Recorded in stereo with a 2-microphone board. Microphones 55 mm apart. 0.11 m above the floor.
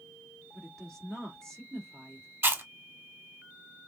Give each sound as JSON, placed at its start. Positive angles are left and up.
{"t": 0.5, "sound": "a woman speaking", "side_deg": 10, "distance_m": 1.7}
{"t": 2.4, "sound": "chewing", "side_deg": -40, "distance_m": 0.7}